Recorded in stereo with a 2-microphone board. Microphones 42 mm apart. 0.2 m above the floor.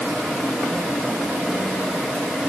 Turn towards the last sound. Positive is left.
No sound to turn to.